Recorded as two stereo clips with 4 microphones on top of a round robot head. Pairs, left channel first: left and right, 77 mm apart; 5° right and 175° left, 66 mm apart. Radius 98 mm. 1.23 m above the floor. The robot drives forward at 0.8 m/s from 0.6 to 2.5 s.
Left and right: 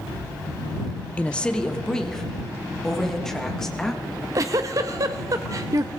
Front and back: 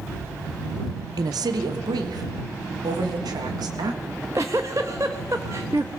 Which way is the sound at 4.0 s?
125° right.